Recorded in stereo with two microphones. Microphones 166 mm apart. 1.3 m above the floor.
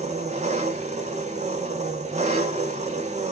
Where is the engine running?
45° right (ahead or behind), 0.7 m.